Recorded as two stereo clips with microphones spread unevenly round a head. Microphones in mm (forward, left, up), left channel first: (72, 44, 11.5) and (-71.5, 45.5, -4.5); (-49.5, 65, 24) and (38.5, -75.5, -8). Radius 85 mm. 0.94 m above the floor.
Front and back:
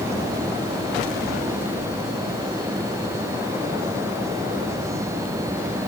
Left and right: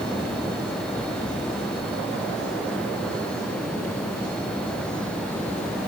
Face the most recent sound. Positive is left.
No sound to turn to.